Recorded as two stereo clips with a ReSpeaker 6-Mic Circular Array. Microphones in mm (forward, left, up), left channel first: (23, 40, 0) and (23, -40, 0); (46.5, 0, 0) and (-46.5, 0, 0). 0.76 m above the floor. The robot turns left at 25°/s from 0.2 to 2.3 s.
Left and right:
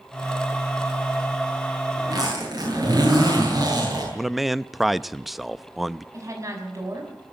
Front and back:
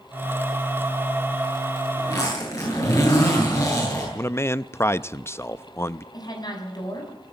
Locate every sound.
2.0 s a zipper: 45° right, 10 m; by 4.0 s 50° right, 10 m
4.2 s a man speaking: 5° right, 0.5 m
6.1 s a woman speaking: 40° right, 6 m